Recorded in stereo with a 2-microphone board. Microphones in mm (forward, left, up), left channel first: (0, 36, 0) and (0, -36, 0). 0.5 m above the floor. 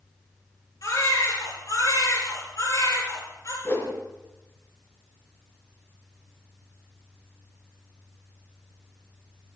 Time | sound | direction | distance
0.8 | a baby crying | 50° left (ahead or behind) | 7.5 m
3.6 | a whoosh | 40° left (ahead or behind) | 4.5 m